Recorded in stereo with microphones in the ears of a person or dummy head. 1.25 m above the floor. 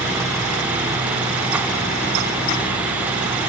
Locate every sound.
Only background noise.